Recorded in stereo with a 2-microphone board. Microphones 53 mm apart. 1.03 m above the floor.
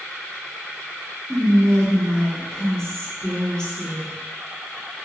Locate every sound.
1.3 s whispering: 15° left (ahead or behind), 1.8 m